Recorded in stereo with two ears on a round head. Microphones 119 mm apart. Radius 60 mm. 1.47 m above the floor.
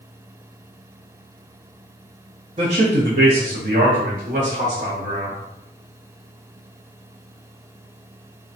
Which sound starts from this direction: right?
A man speaking, at 2.6 s.